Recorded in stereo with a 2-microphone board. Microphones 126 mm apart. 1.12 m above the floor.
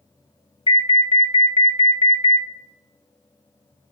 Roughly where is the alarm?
Left.